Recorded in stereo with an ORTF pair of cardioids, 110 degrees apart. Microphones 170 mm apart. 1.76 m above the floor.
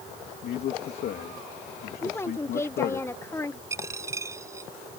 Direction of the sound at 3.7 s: 15° right.